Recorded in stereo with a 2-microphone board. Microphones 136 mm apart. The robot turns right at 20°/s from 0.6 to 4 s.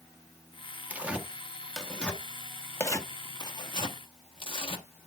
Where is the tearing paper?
10° right (ahead or behind), 0.9 m; by 4.8 s 40° left (ahead or behind), 0.9 m.